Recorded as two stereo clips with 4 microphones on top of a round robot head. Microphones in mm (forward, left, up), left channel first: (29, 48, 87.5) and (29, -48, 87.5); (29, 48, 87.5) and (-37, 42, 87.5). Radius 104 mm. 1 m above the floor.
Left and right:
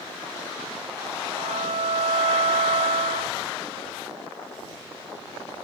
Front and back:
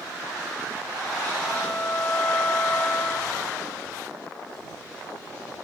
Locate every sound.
1.4 s a violin: 65° right